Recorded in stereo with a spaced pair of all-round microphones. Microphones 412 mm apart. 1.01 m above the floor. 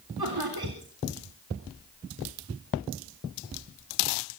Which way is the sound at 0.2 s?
60° right (ahead or behind).